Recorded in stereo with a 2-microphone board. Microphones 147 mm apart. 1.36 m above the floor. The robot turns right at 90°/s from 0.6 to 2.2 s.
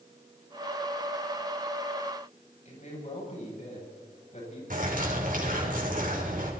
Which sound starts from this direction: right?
A bird, at 4.7 s.